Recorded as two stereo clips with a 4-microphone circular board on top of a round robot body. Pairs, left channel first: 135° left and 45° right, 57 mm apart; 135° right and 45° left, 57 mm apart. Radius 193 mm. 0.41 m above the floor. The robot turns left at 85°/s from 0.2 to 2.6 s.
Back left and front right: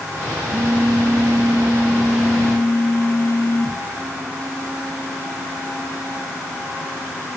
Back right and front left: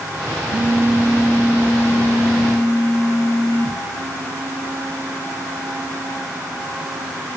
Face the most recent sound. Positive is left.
turn(degrees=-165)